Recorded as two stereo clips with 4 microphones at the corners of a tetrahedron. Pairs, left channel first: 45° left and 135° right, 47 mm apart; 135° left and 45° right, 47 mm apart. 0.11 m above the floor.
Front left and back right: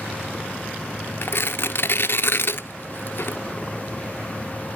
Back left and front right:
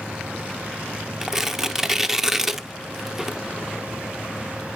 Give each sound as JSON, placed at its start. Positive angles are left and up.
{"t": 1.2, "sound": "tearing paper", "azimuth_deg": 30, "distance_m": 0.5}